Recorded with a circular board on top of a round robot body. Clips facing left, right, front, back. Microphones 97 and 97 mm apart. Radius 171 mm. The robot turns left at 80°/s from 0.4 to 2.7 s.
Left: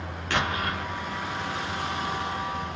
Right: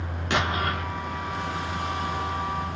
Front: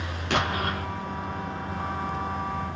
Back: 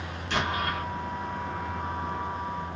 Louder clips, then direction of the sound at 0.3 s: Right 2 dB, front 2 dB; 20° right.